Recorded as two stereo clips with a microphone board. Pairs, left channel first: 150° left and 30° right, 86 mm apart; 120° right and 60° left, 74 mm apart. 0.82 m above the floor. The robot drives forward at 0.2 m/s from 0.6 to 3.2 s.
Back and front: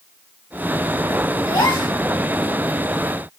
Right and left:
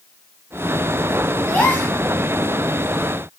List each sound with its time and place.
1.5 s a gasp: 175° left, 1.3 m